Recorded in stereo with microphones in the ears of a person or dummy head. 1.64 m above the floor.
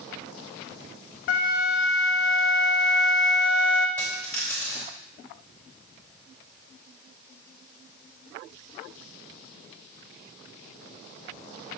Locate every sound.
1.3 s a flute: 55° left (ahead or behind), 0.8 m
4.0 s a dropped coin: 5° left (ahead or behind), 4 m